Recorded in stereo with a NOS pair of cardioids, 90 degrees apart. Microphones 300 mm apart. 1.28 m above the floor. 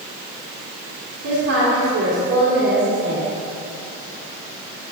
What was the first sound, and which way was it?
A woman speaking, 50° right.